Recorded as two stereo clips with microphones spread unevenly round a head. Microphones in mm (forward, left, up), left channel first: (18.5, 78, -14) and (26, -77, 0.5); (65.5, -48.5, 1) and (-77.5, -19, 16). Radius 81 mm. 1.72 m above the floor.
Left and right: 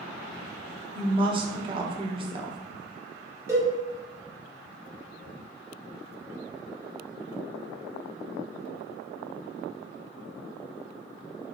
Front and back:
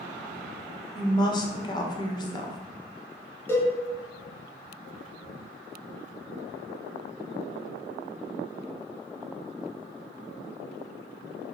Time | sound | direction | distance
0.9 | a woman speaking | 65° right | 0.6 m
3.5 | a cowbell | 80° right | 1.1 m